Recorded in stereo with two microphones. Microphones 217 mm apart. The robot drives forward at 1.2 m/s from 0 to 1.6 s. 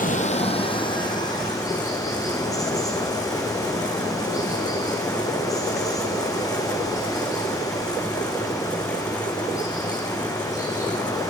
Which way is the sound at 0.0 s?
40° left (ahead or behind).